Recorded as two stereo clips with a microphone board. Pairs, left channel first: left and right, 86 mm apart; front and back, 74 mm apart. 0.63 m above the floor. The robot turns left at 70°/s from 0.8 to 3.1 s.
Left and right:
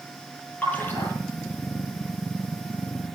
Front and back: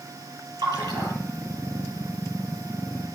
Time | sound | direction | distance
0.6 | a splash | 165° left | 6.5 m